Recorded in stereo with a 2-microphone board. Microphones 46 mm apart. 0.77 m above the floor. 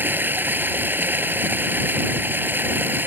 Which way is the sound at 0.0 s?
45° right (ahead or behind).